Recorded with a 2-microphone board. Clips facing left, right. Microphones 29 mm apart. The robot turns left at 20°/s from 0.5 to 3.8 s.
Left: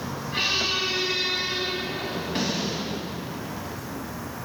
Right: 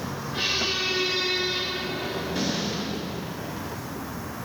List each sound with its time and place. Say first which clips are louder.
0.3 s a squeak: left 2 dB; 115° left, 3.5 m; by 3.1 s 65° left, 3.5 m